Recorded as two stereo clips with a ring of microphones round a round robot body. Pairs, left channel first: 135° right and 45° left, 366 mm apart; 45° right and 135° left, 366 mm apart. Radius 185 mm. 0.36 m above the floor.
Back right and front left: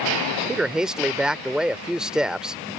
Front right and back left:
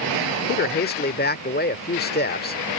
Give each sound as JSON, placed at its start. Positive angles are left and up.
{"t": 0.5, "sound": "a man speaking", "azimuth_deg": -40}